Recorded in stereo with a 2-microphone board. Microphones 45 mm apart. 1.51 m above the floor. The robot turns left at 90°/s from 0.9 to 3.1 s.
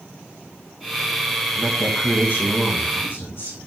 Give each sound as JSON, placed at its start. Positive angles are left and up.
{"t": 1.6, "sound": "a woman speaking", "azimuth_deg": -160, "distance_m": 2.5}